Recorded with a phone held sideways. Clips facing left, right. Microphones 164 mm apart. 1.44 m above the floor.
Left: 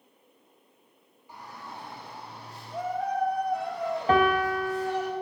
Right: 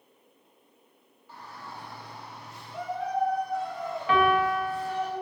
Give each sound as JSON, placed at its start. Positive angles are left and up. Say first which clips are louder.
{"t": 1.3, "sound": "a shout", "louder": "left 1 dB", "side_deg": 15, "distance_m": 3.5}
{"t": 4.1, "sound": "a piano", "louder": "even", "side_deg": 40, "distance_m": 0.9}